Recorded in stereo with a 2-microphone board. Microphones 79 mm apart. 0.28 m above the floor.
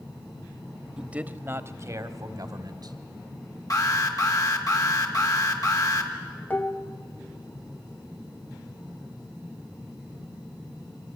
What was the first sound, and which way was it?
A man speaking, 10° right (ahead or behind).